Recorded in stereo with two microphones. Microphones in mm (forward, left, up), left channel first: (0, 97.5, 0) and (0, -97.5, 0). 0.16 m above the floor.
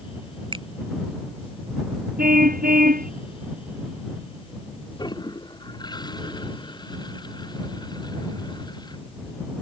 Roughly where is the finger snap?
Right.